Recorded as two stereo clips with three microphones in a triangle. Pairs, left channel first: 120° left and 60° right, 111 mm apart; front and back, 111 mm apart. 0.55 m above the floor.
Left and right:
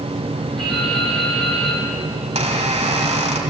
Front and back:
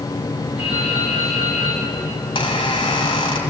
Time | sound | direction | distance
0.6 | dripping | 155° right | 9 m
2.2 | a squeak | 40° right | 3 m